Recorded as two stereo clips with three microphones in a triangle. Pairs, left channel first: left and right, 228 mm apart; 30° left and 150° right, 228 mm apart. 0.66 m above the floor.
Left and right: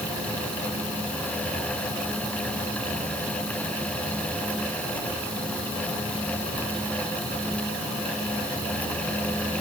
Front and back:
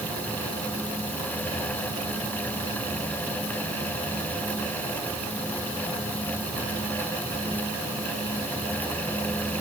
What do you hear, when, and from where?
Only background noise.